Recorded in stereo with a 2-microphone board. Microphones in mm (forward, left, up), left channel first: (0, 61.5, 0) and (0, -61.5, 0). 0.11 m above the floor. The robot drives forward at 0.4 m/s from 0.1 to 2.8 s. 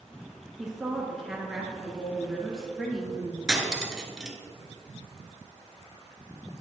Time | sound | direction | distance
0.6 | a woman speaking | 5° right (ahead or behind) | 1.7 m
3.5 | cutlery clinking | 5° right (ahead or behind) | 0.9 m